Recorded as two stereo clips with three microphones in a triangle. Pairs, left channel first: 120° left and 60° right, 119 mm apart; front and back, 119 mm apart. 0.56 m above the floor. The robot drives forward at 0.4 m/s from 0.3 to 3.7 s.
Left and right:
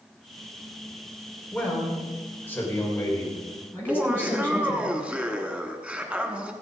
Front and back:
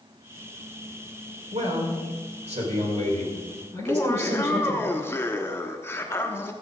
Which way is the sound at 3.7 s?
Straight ahead.